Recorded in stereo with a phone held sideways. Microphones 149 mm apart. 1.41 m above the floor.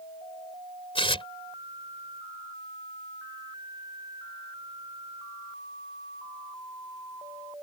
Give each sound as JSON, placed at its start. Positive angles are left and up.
{"t": 0.9, "sound": "tearing paper", "side_deg": 35}